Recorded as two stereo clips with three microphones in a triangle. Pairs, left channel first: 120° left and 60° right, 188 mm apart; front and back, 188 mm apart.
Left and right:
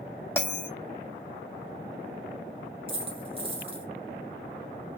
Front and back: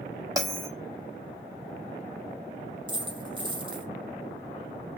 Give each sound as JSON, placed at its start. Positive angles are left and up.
{"t": 0.4, "sound": "a bell", "azimuth_deg": 170, "distance_m": 0.7}
{"t": 2.9, "sound": "a dropped coin", "azimuth_deg": -115, "distance_m": 0.9}